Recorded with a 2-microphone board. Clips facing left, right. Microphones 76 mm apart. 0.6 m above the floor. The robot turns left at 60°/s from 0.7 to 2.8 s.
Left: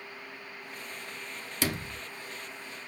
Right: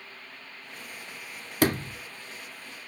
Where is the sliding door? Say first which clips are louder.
Right 8 dB; 45° right (ahead or behind), 0.5 m.